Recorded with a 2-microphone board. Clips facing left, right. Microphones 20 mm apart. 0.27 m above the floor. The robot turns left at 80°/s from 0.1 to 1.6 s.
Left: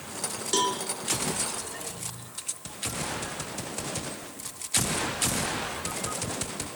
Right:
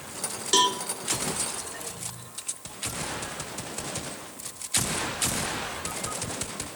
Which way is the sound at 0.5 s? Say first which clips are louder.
Right 4 dB; 25° right (ahead or behind).